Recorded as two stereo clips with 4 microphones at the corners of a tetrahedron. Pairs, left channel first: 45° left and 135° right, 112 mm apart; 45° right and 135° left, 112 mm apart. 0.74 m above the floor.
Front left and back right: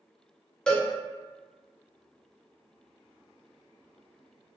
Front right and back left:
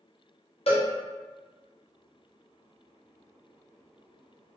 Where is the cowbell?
40° right, 0.7 m.